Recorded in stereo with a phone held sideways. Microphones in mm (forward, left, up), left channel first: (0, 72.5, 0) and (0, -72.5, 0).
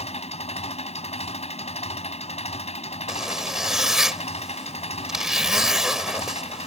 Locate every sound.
0.0 s an engine running: 50° left (ahead or behind)
3.1 s a zipper: 5° right (ahead or behind)